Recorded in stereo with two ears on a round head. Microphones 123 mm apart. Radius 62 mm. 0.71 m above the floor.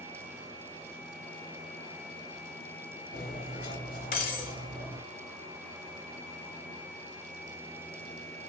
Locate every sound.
3.1 s cutlery clinking: 70° left (ahead or behind), 1.5 m